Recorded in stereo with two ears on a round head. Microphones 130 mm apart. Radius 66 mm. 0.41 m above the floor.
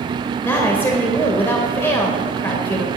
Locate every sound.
0.4 s a woman speaking: 15° left (ahead or behind), 1.6 m